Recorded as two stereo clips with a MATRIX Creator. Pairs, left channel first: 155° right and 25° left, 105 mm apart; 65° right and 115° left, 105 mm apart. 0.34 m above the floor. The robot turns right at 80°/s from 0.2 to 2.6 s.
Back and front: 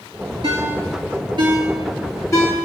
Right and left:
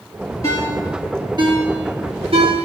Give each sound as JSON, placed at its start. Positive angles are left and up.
{"t": 0.4, "sound": "a ringtone", "azimuth_deg": -10, "distance_m": 3.0}